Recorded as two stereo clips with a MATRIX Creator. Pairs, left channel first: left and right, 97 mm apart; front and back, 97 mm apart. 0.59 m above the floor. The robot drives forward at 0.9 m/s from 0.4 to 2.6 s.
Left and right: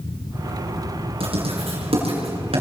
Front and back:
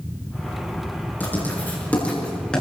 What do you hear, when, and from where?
1.2 s writing: 70° right, 7 m; by 2.6 s 80° right, 6.5 m